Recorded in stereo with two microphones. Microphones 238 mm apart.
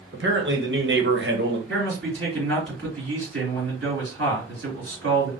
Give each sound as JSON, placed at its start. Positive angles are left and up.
{"t": 0.1, "sound": "a man speaking", "side_deg": -45, "distance_m": 1.1}
{"t": 1.7, "sound": "a man speaking", "side_deg": -50, "distance_m": 3.0}